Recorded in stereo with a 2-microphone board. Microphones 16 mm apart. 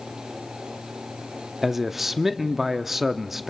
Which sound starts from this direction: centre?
A man speaking, at 1.6 s.